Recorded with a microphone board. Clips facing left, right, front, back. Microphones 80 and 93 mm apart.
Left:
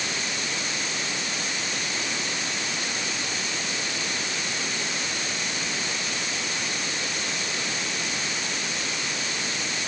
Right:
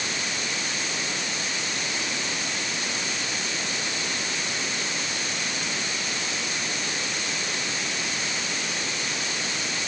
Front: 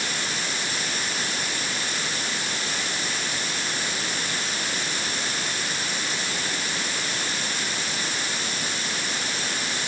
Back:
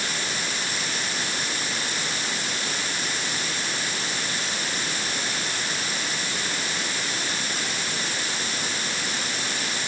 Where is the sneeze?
No sneeze in this recording.